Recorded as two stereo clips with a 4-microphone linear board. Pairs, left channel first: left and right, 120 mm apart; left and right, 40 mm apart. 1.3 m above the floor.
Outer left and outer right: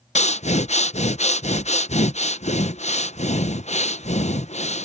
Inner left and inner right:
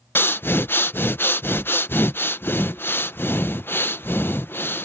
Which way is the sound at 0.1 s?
70° left (ahead or behind).